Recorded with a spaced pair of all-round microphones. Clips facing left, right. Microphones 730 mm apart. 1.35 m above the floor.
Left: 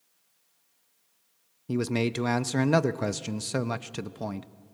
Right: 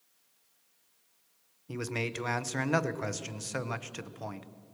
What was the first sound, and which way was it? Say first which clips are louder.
A man speaking: left 9 dB; 65° left (ahead or behind).